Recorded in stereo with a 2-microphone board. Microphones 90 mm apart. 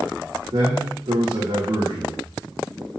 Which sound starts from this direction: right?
A man speaking, at 0.5 s.